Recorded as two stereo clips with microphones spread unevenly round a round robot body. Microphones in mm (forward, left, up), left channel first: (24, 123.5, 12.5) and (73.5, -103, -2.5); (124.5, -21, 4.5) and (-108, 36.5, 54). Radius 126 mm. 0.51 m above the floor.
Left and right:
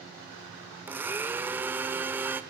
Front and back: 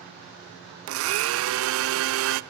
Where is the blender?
160° right, 0.5 m.